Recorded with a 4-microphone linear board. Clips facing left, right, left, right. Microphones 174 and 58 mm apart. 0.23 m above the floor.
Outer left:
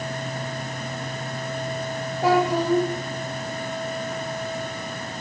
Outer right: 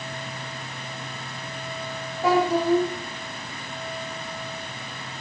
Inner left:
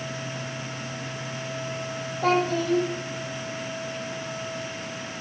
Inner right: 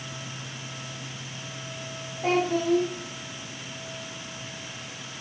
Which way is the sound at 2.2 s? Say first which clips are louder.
Even, inner left 1 dB; 80° left.